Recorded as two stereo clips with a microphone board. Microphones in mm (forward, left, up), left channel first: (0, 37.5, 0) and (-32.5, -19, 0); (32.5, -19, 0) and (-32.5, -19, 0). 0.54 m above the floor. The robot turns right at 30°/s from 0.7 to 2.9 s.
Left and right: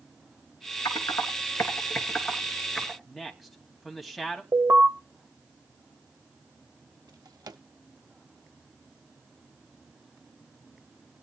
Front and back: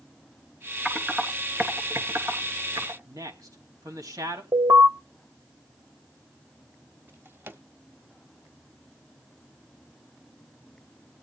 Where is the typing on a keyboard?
95° left, 3 m; by 3.0 s 155° left, 3 m.